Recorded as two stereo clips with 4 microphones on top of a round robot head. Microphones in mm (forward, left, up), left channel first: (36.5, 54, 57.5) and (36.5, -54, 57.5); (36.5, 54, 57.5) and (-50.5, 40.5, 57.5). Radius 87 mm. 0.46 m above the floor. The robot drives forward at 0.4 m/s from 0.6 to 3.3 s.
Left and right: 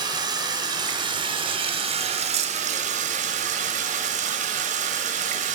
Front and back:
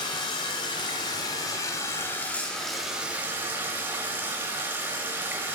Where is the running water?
35° right, 1.2 m; by 5.6 s 95° right, 0.8 m.